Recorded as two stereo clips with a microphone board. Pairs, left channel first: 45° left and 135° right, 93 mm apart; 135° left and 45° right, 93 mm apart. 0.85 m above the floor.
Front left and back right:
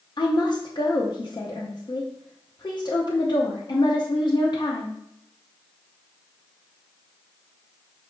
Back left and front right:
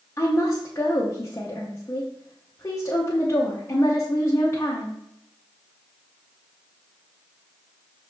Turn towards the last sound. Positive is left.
turn(degrees=80)